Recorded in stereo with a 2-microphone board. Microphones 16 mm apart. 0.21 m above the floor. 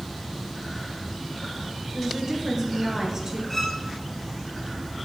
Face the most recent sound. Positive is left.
turn(degrees=20)  # may be behind; listen again after turning